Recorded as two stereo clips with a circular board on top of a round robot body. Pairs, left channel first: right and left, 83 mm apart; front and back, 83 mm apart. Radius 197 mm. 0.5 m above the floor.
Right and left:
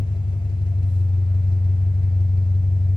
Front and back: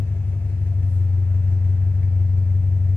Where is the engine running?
65° right, 0.7 m.